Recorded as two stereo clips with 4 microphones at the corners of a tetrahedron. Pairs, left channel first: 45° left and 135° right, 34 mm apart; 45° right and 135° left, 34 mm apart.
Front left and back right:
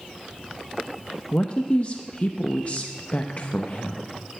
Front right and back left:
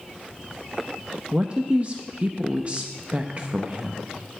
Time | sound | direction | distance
1.3 | a man speaking | 90° left | 0.7 m